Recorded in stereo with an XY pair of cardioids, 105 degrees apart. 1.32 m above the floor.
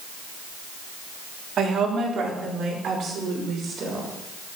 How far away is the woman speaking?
About 3.5 m.